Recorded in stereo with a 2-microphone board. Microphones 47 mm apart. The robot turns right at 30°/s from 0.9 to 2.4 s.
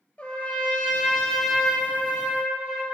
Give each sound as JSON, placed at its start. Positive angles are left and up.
{"t": 0.2, "sound": "a trumpet", "azimuth_deg": 155, "distance_m": 1.3}